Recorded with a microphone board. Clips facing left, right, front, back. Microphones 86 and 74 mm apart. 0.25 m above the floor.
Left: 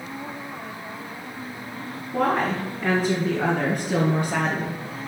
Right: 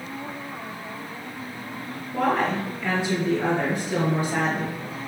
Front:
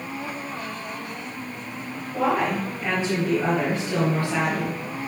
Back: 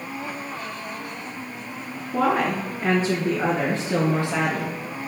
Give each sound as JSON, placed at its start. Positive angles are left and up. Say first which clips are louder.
{"t": 2.1, "sound": "a woman speaking", "louder": "even, back 1 dB", "azimuth_deg": 140, "distance_m": 3.0}